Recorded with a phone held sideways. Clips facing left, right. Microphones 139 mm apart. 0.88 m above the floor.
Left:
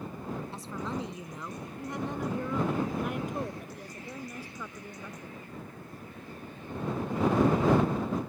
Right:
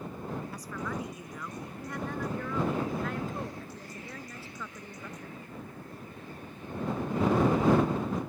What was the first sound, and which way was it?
A woman speaking, 30° left (ahead or behind).